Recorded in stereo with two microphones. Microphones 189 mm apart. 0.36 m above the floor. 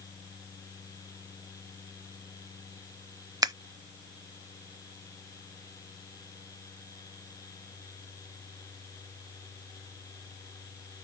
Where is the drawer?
No drawer in this recording.